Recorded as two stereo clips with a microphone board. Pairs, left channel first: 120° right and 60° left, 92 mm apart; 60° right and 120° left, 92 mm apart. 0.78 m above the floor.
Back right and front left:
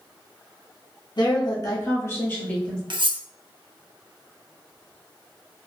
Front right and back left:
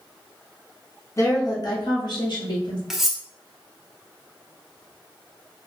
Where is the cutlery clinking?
35° left, 0.6 m.